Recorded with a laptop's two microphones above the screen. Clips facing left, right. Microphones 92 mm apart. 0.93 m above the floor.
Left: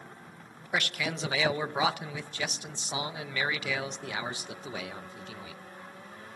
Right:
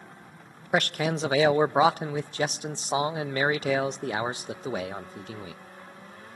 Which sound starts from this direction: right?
A man speaking, at 0.7 s.